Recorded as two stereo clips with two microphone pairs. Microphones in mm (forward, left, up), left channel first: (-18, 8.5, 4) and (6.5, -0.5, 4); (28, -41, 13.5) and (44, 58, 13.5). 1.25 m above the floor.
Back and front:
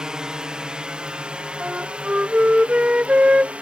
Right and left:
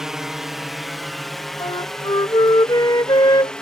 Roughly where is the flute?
Ahead right.